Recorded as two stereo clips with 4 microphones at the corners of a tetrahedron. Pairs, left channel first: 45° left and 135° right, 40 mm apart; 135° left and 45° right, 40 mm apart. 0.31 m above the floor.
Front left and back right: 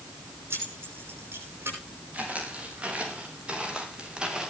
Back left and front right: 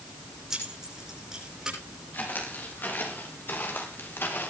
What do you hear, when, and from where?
0.5 s keys jangling: 125° right, 9.5 m; by 1.8 s 120° right, 9 m
2.1 s footsteps: 170° left, 6.5 m; by 4.5 s 155° left, 4 m